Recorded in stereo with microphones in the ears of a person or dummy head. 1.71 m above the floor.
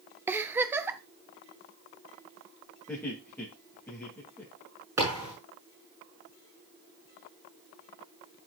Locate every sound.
0.3 s a giggle: 15° right (ahead or behind), 0.7 m
2.9 s laughter: 5° left (ahead or behind), 3 m
5.0 s a thud: 10° right (ahead or behind), 6.5 m